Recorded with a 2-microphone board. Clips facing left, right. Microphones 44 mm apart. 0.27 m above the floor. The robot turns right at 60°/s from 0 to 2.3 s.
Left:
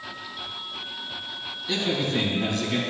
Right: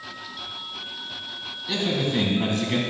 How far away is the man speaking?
About 2.5 m.